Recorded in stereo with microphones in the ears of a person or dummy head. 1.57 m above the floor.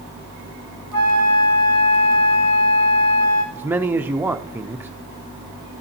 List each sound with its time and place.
0.9 s a flute: 80° left, 2.5 m
3.5 s a man speaking: 10° right (ahead or behind), 0.6 m